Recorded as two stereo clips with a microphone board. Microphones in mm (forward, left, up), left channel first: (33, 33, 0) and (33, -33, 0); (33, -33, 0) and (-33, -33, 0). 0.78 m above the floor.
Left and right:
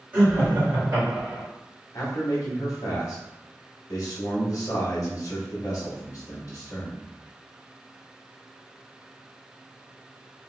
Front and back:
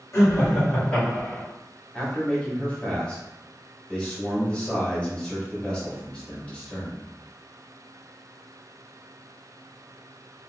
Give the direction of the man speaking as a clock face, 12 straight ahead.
10 o'clock.